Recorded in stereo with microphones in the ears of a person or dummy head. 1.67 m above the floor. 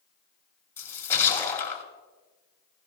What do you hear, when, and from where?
0.8 s a splash: 15° left (ahead or behind), 4 m